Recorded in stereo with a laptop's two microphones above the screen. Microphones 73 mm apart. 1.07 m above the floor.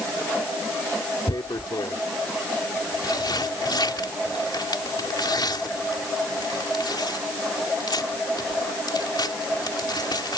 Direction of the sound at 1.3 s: 80° left.